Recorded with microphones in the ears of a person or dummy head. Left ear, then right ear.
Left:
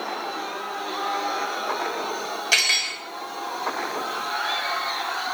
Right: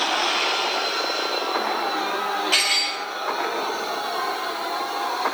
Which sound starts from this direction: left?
Cutlery clinking, at 2.5 s.